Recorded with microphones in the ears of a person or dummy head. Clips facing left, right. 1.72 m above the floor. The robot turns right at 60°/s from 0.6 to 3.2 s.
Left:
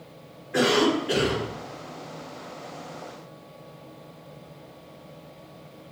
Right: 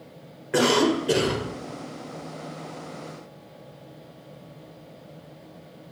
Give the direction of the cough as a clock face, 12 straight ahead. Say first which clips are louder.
Right 1 dB; 3 o'clock.